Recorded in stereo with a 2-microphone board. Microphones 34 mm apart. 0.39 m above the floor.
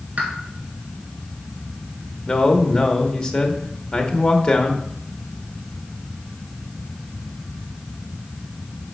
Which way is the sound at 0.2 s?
50° right (ahead or behind).